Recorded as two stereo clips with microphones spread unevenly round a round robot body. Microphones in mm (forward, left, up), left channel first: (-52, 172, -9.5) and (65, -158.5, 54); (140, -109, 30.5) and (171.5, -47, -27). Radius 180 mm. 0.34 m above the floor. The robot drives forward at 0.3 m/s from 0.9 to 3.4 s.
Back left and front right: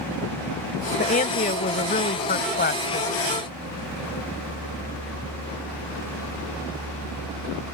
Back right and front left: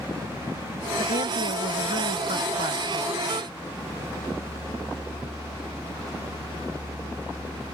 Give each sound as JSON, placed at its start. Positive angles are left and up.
{"t": 1.0, "sound": "a woman speaking", "azimuth_deg": 160}